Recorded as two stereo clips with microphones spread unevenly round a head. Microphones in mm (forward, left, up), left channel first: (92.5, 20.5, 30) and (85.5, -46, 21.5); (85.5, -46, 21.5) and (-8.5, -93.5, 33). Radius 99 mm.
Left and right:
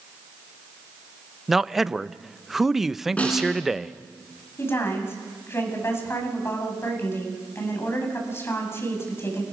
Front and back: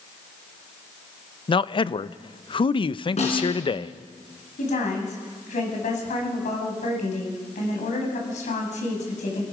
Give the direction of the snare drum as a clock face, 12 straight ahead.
11 o'clock.